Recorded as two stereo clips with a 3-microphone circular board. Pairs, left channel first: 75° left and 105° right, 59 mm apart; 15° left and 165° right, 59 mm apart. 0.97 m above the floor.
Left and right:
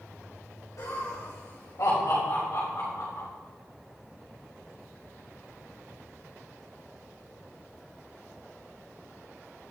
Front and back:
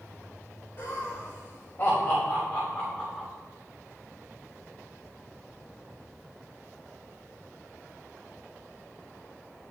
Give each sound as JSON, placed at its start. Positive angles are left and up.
{"t": 0.8, "sound": "laughter", "azimuth_deg": 65, "distance_m": 3.5}